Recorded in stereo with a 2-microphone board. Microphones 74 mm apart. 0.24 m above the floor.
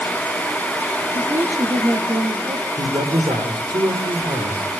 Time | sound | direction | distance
1.1 | a woman speaking | 55° right (ahead or behind) | 3.5 m
2.8 | a man speaking | 75° right (ahead or behind) | 8.5 m